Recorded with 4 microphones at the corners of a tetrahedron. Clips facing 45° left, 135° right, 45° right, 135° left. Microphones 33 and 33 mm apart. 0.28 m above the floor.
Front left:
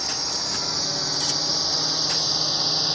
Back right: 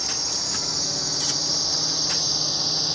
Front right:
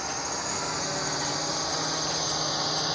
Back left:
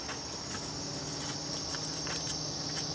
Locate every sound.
0.0 s a drone: 30° right; by 3.0 s 25° right